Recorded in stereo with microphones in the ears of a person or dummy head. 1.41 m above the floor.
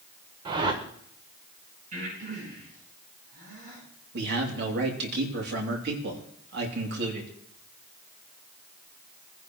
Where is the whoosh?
30° right (ahead or behind), 1.2 m.